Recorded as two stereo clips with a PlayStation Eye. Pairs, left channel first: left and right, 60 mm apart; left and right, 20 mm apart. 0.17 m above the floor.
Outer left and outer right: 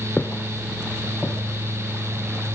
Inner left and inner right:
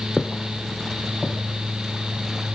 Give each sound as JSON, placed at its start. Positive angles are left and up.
{"t": 0.2, "sound": "footsteps", "side_deg": 25, "distance_m": 1.2}